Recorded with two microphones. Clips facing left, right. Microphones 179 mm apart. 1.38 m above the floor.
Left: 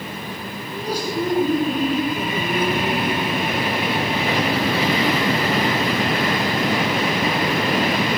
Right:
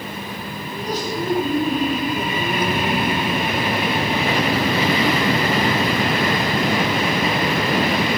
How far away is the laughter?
About 5 m.